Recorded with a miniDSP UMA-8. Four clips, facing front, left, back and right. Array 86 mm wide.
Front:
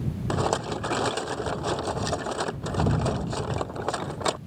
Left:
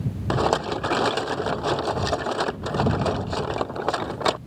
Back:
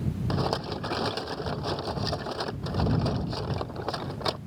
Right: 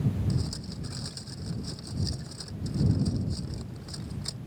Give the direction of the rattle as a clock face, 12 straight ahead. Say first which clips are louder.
Left 14 dB, front 4 dB; 10 o'clock.